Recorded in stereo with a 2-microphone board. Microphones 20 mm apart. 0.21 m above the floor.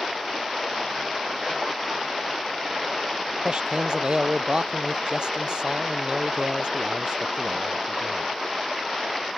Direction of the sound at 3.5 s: 50° right (ahead or behind).